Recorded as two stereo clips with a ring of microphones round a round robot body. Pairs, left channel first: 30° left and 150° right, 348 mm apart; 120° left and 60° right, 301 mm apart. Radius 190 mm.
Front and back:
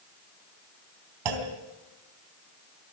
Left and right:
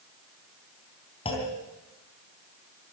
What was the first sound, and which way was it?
A clunk, 165° right.